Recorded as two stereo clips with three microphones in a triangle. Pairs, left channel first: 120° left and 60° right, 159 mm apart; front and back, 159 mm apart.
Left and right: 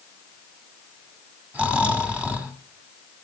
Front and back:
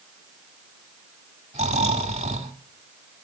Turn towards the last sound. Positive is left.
turn(degrees=-140)